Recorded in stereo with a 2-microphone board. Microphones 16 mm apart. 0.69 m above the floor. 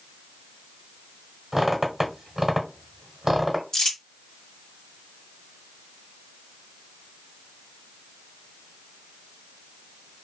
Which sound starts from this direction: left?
Crumpling, at 3.7 s.